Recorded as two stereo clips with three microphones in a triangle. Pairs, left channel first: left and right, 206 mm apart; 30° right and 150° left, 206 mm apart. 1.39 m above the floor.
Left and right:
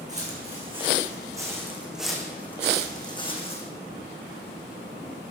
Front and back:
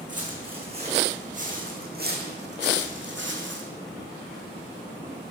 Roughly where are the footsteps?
Behind right.